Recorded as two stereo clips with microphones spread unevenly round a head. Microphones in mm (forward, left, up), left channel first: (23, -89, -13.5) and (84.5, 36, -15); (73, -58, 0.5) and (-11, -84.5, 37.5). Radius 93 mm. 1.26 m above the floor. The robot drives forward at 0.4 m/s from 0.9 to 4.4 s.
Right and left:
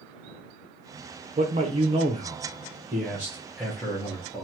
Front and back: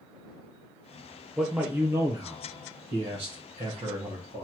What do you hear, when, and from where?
1.4 s a man speaking: 85° left, 0.7 m; by 4.5 s 160° left, 1.4 m